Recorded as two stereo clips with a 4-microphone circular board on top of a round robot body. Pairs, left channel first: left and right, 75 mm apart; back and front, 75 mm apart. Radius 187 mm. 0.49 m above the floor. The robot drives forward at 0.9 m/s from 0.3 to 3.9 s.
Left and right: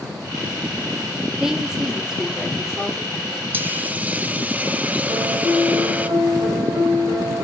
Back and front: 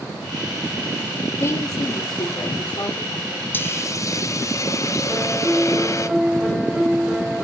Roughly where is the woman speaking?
Behind.